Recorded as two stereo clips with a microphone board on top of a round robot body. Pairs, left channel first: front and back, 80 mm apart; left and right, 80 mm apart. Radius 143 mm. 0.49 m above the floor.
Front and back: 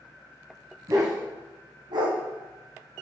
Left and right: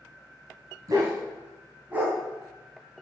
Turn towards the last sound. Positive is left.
turn(degrees=180)